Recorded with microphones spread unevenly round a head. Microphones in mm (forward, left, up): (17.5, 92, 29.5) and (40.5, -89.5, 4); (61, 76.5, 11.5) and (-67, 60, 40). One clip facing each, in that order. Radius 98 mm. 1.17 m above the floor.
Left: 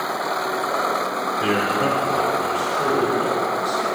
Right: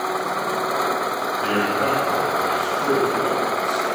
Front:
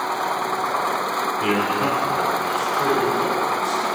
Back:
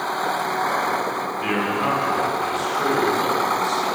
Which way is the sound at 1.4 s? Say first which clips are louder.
Left 1 dB, front 1 dB; 70° left.